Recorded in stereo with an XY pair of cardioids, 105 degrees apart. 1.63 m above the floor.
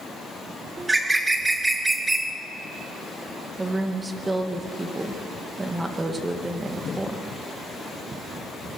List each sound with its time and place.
0.8 s a bird: 20° right, 1.6 m
3.6 s a woman speaking: 20° right, 2 m